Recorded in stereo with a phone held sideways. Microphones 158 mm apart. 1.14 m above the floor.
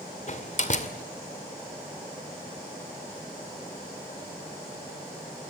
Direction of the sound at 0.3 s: 50° left (ahead or behind).